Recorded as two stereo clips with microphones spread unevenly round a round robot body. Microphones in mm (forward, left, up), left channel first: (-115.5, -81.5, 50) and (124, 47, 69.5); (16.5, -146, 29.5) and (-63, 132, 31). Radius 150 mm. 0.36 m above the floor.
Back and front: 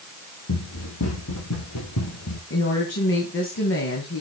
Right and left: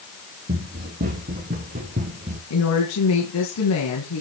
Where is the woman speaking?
110° right, 3 m.